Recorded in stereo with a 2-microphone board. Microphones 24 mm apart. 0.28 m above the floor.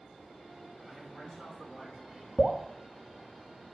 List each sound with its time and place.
0.8 s a man speaking: 30° right (ahead or behind), 3 m; by 2.3 s 55° right (ahead or behind), 3.5 m
2.4 s dripping: 5° right (ahead or behind), 0.5 m